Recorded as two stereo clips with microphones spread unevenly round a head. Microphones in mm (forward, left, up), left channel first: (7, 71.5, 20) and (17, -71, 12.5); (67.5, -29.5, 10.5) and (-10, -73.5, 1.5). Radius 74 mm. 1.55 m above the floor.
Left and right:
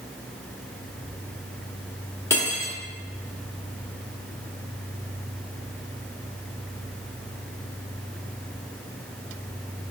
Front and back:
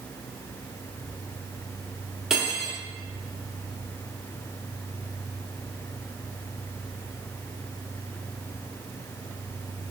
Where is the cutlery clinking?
120° left, 0.6 m.